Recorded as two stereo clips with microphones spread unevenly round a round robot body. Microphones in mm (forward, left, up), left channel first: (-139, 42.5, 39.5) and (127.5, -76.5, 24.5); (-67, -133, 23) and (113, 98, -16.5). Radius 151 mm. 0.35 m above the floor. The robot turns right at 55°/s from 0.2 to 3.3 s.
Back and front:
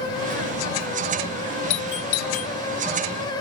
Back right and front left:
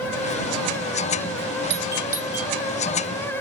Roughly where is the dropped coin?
I don't hear a dropped coin.